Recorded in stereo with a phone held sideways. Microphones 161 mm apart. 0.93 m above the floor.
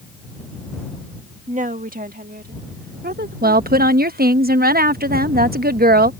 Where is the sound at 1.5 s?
45° right (ahead or behind); by 4.3 s 75° right (ahead or behind).